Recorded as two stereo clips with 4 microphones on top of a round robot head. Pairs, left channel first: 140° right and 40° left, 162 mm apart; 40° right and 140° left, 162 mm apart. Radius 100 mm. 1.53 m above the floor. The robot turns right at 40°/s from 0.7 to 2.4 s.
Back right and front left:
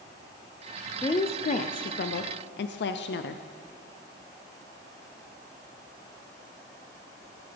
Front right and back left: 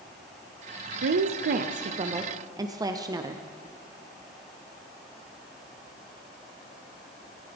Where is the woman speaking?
155° left, 0.5 m; by 3.4 s 150° right, 0.5 m.